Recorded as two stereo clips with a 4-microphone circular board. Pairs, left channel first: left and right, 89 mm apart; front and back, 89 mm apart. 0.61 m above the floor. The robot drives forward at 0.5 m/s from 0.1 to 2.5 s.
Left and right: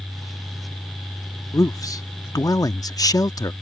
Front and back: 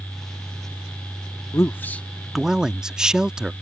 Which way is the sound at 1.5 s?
50° left.